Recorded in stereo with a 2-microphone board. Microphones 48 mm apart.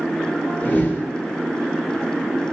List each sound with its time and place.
0.6 s a whoosh: 35° left (ahead or behind), 1.1 m